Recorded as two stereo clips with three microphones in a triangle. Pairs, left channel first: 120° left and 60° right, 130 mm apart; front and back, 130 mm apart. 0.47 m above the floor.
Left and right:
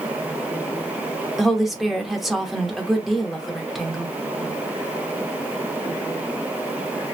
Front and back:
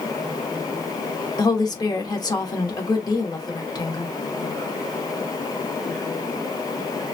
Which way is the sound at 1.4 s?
30° left.